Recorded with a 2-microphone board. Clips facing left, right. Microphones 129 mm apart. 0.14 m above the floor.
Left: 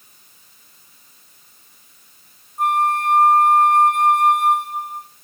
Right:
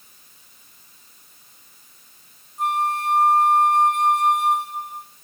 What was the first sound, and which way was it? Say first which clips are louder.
A flute: left 4 dB; 55° left (ahead or behind).